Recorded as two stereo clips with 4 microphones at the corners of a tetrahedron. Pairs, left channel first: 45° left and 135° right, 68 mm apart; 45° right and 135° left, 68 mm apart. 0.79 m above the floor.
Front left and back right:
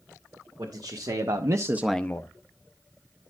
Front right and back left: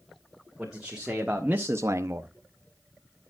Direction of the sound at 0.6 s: 140° right.